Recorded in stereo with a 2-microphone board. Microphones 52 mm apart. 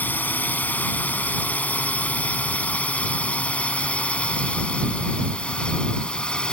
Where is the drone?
35° left (ahead or behind); by 6.5 s 15° left (ahead or behind).